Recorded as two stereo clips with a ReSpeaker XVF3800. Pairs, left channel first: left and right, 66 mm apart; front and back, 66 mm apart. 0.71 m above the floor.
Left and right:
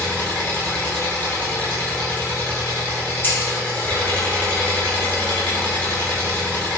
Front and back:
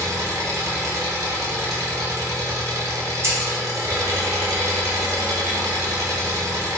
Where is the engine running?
155° left, 0.9 m.